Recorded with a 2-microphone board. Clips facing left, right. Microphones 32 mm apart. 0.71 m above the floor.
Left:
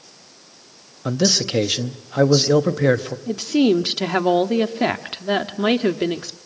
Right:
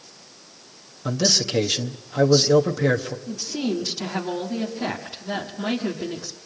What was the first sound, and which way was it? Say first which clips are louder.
A man speaking: left 3 dB; 15° left (ahead or behind).